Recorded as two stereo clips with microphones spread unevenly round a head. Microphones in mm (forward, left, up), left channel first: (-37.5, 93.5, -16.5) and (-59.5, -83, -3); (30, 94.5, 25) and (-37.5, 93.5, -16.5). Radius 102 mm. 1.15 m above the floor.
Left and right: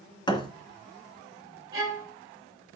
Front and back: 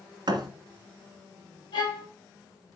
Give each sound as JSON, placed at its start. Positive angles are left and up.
{"t": 0.3, "sound": "a thud", "azimuth_deg": 150, "distance_m": 2.0}
{"t": 1.7, "sound": "a violin", "azimuth_deg": -25, "distance_m": 4.0}